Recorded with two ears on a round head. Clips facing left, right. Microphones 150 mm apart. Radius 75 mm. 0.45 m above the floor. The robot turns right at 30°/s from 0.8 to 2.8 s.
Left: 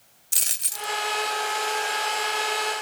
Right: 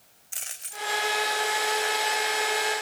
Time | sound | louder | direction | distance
0.3 | a dropped coin | left 1 dB | 45° left (ahead or behind) | 0.5 m